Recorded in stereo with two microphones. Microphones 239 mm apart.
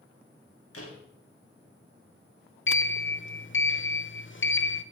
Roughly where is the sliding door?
Left.